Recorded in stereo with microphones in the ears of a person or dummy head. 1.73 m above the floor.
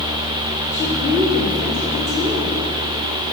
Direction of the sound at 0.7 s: 15° left (ahead or behind).